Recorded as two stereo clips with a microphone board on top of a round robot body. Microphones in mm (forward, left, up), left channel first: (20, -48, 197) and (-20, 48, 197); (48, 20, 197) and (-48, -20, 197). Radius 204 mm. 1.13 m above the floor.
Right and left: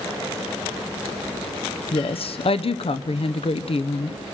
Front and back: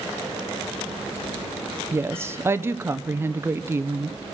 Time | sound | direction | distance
1.9 | a woman speaking | 90° right | 1.0 m